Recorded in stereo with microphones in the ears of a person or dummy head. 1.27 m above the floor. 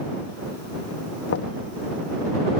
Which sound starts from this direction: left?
Knocking, at 1.3 s.